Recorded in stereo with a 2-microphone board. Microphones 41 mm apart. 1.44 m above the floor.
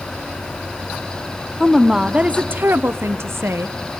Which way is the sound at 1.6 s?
Centre (ahead or behind).